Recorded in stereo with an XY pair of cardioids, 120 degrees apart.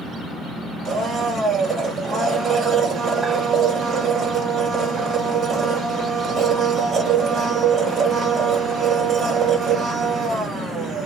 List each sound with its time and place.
0.8 s a blender: 50° right, 2.0 m